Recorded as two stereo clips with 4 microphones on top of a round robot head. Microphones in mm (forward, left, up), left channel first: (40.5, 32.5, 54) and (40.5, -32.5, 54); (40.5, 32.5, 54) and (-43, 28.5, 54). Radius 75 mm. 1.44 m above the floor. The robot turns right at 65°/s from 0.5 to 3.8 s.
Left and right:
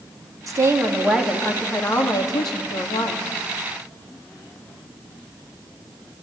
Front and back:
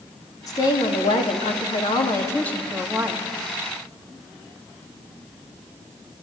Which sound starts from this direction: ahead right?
A woman speaking, at 0.5 s.